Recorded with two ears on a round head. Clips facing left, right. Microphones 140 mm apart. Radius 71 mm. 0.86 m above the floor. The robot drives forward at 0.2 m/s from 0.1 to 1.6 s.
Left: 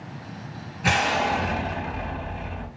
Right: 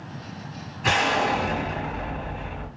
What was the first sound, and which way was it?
An explosion, 10° left (ahead or behind).